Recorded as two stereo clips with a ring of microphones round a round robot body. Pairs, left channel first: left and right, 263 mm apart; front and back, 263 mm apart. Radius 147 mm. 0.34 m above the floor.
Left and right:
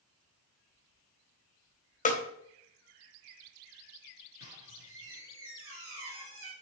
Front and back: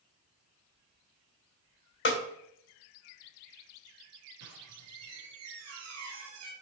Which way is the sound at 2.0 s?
35° left.